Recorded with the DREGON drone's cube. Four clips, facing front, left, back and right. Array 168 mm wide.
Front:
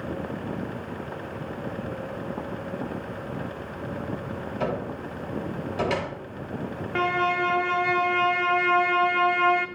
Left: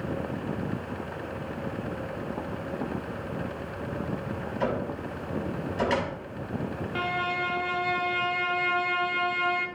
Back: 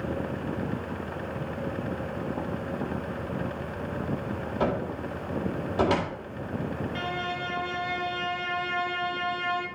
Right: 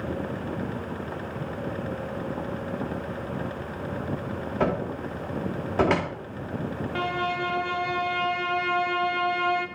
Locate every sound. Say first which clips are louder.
4.6 s a cupboard door: right 3 dB, back 1 dB; 110° right, 1.9 m
7.0 s a violin: right 2 dB, front 8 dB; 5° right, 0.8 m